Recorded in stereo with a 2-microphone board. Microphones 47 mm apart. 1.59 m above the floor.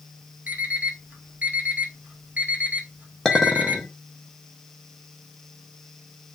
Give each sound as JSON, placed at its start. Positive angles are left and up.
{"t": 0.5, "sound": "an alarm clock", "side_deg": -35, "distance_m": 1.1}
{"t": 3.2, "sound": "a clink", "side_deg": 10, "distance_m": 0.9}